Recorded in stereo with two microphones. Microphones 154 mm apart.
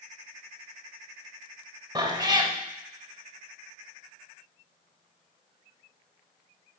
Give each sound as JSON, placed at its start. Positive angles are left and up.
{"t": 1.9, "sound": "a cat meowing", "side_deg": -25, "distance_m": 0.6}